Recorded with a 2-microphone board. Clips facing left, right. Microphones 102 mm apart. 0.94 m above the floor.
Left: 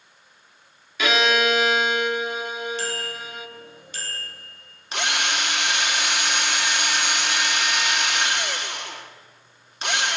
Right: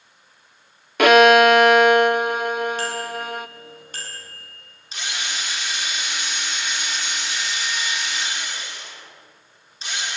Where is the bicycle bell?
50° right (ahead or behind), 7 m.